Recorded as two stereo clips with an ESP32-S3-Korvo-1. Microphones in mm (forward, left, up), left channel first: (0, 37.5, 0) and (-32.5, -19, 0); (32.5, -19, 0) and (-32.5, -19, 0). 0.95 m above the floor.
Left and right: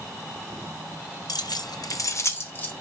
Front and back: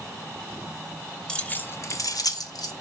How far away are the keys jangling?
About 0.6 m.